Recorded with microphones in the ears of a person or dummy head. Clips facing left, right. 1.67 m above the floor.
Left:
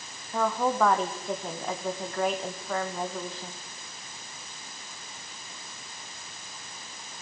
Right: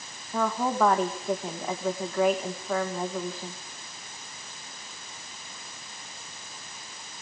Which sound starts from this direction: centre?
A woman speaking, at 0.3 s.